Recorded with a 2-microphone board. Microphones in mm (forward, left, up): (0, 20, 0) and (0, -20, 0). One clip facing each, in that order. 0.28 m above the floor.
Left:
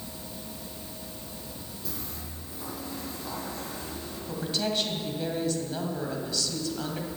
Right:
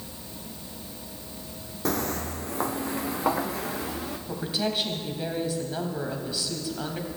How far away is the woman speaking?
About 1.9 m.